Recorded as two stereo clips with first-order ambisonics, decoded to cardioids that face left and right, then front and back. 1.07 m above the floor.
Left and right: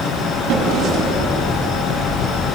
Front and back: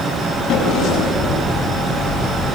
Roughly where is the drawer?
Ahead right.